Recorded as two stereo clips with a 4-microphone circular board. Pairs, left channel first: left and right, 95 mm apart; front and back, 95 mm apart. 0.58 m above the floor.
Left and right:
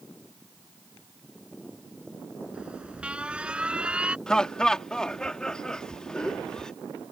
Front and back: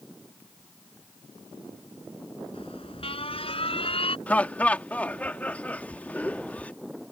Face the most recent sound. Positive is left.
turn(degrees=25)